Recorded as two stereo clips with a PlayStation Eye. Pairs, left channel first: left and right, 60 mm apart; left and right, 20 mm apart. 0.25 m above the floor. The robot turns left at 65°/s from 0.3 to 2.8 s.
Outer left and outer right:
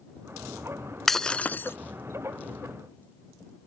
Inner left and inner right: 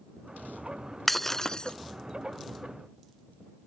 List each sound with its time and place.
1.1 s breaking glass: 175° left; by 1.8 s 130° left